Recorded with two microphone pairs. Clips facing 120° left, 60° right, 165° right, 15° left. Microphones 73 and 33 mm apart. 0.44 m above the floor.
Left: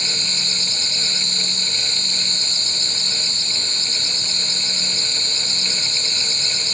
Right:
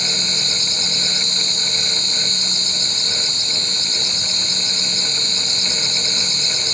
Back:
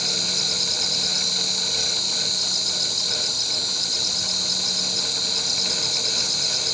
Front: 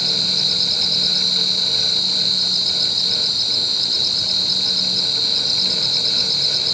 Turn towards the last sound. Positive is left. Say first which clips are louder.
# right 3 dB, front 5 dB
turn(degrees=65)